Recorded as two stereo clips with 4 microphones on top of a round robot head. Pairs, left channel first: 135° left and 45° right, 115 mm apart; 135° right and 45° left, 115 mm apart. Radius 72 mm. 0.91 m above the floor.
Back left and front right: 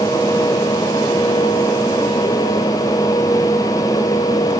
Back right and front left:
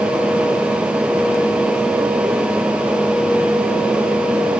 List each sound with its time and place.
Only background noise.